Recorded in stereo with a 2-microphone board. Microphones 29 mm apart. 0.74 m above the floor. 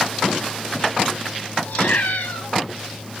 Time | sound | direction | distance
1.7 | a cat meowing | 75° left (ahead or behind) | 2.5 m